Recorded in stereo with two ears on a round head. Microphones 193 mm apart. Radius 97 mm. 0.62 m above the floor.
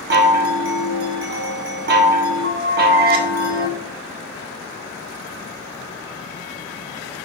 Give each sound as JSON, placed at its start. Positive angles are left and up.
{"t": 0.1, "sound": "a chime", "side_deg": -45, "distance_m": 1.5}